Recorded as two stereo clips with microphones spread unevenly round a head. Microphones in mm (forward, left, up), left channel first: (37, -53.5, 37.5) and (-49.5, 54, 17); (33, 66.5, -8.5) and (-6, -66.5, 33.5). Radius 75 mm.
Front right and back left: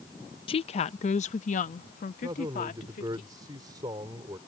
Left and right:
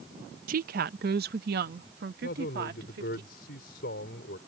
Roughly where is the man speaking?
Ahead left.